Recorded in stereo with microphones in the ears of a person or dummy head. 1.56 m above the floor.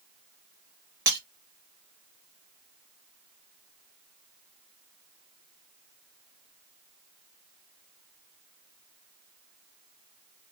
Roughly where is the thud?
I don't hear a thud.